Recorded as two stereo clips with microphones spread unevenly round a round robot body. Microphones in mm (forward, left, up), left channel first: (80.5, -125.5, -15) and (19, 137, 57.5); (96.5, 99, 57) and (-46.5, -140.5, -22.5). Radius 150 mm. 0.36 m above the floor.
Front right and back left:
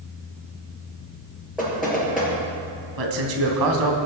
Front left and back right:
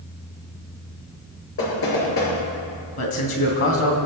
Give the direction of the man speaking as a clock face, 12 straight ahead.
8 o'clock.